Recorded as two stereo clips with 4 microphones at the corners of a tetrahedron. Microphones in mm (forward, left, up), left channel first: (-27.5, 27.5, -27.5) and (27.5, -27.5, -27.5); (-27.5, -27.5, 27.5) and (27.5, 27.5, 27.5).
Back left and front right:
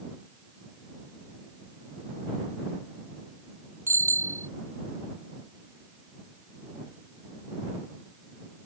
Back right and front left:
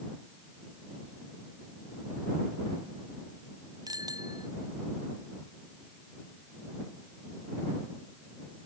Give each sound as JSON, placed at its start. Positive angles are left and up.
{"t": 3.9, "sound": "a bicycle bell", "azimuth_deg": 10}